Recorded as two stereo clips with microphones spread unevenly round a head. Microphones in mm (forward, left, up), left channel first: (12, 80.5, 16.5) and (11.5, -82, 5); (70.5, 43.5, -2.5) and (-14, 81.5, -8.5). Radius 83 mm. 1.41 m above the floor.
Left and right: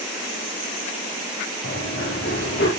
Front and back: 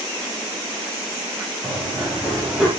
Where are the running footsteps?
65° left, 5 m.